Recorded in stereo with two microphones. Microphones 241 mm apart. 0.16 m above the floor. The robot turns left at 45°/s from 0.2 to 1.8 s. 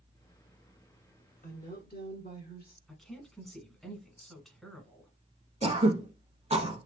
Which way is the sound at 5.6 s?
30° right (ahead or behind).